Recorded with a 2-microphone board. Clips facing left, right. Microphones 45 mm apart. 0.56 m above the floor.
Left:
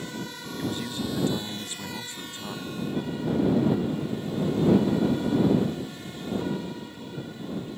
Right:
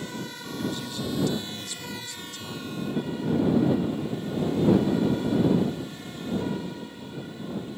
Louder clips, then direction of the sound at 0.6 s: Left 1 dB; 30° left (ahead or behind).